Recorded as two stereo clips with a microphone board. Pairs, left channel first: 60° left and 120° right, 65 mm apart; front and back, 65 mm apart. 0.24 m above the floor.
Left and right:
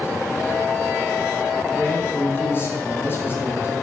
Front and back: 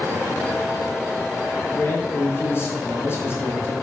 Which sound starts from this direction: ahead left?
A man speaking, at 1.6 s.